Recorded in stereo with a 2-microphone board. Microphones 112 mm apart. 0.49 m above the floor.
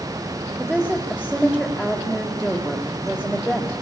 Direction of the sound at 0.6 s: 5° right (ahead or behind).